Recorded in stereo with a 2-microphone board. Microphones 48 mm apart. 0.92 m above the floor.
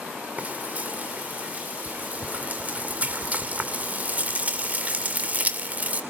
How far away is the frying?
About 2.5 m.